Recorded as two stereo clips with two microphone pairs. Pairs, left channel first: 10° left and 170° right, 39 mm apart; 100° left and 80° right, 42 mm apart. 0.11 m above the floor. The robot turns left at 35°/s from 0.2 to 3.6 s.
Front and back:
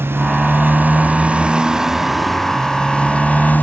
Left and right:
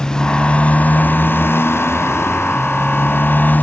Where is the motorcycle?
170° left; by 3.6 s 50° left.